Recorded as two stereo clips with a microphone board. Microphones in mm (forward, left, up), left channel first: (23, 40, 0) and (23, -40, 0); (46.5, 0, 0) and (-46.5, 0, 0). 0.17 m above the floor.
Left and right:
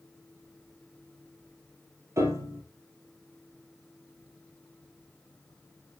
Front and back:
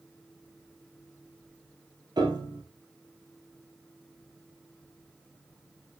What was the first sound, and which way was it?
A piano, 140° right.